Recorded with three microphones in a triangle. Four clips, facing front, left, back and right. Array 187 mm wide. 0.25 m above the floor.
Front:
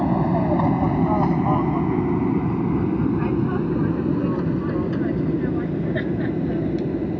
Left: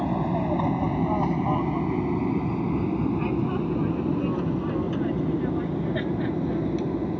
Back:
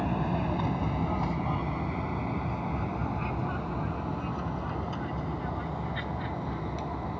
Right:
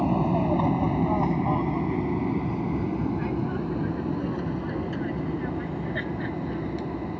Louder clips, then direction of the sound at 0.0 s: Right 2 dB, front 10 dB; 10° right.